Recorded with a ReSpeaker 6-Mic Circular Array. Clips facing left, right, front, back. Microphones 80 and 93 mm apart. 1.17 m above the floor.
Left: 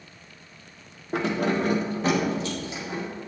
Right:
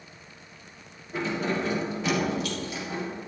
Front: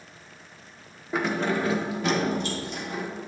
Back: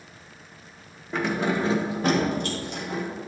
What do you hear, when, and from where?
1.1 s keys jangling: 80° left, 1.1 m; by 3.0 s 160° left, 2.5 m